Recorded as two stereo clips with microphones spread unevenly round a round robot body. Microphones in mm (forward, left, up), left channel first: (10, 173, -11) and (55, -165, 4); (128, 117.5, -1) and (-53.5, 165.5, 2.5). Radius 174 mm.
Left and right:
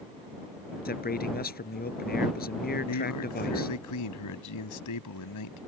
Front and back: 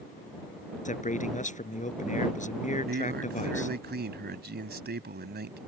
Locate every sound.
0.8 s a man speaking: 35° left
2.9 s a man speaking: 140° left